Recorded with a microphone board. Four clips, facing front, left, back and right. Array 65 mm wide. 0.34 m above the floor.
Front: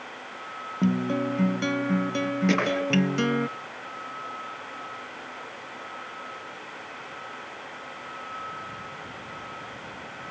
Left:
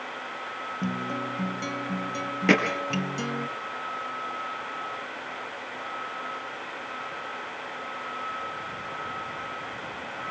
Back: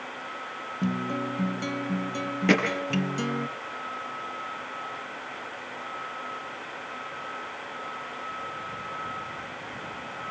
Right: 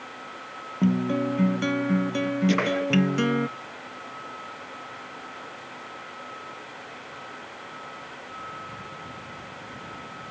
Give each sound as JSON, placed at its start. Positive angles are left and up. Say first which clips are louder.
{"t": 0.8, "sound": "a guitar", "louder": "right 9 dB, front 4 dB", "azimuth_deg": -45, "distance_m": 0.6}
{"t": 2.5, "sound": "hammering", "louder": "left 4 dB, back 3 dB", "azimuth_deg": 110, "distance_m": 6.0}